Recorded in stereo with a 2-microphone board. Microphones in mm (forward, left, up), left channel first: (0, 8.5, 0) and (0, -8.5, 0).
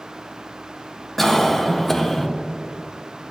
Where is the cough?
20° left (ahead or behind), 0.9 m.